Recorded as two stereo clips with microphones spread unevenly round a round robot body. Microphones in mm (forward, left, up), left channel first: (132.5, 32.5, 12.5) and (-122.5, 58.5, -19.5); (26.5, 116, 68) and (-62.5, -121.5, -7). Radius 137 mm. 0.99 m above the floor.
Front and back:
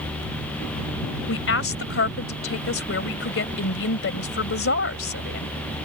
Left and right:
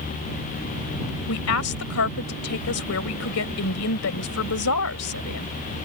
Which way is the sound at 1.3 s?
35° left.